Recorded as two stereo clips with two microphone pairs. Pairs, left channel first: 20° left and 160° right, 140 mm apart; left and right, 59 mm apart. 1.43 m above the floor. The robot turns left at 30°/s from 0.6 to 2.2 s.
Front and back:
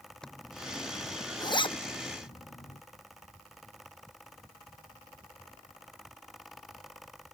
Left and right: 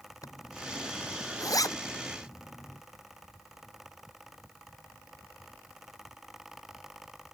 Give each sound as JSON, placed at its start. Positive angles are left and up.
{"t": 0.2, "sound": "a zipper", "azimuth_deg": 105}